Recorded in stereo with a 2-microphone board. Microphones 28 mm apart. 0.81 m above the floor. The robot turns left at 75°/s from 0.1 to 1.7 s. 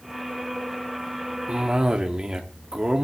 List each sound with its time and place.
1.5 s a cough: 45° right (ahead or behind), 1.6 m; by 3.1 s 30° right (ahead or behind), 1.6 m